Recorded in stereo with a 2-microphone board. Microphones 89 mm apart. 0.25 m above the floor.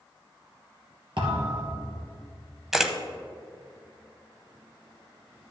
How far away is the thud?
About 2.5 m.